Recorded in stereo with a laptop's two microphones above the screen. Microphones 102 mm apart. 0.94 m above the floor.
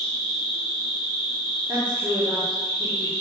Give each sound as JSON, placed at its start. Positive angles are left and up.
{"t": 0.0, "sound": "an insect", "side_deg": 45, "distance_m": 0.9}
{"t": 1.7, "sound": "a woman speaking", "side_deg": -15, "distance_m": 0.9}